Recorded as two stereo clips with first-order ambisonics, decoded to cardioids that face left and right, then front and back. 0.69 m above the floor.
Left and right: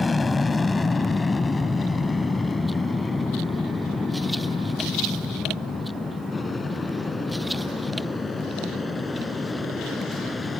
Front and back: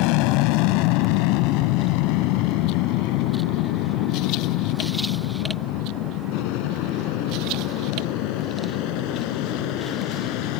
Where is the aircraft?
15° left.